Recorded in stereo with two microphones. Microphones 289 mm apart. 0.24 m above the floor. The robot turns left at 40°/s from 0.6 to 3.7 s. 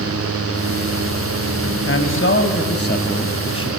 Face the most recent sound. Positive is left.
turn(degrees=25)